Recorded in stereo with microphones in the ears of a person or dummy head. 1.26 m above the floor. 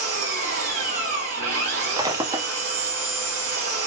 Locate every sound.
0.0 s an engine running: 50° right (ahead or behind), 1.7 m
1.8 s breaking glass: 20° right (ahead or behind), 0.7 m